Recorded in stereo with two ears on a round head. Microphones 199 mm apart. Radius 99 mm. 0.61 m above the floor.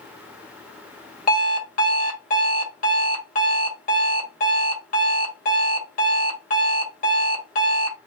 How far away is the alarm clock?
About 1.3 m.